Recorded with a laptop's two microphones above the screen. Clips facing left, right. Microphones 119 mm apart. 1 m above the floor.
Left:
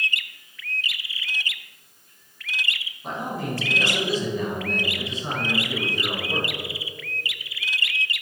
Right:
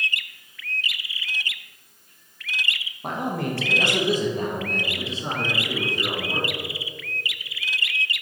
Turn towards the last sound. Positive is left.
turn(degrees=-15)  # may be behind; listen again after turning